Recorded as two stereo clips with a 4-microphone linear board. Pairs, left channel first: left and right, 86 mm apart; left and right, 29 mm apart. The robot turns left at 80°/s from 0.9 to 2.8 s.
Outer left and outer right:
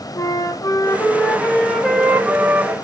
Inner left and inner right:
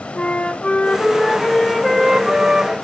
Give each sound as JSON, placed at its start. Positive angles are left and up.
{"t": 0.1, "sound": "a flute", "azimuth_deg": 70, "distance_m": 0.7}